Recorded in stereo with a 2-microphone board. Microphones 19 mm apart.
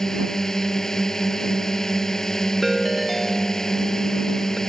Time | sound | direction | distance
0.0 | a drone | 25° left (ahead or behind) | ?
2.6 | a ringtone | 10° right (ahead or behind) | ?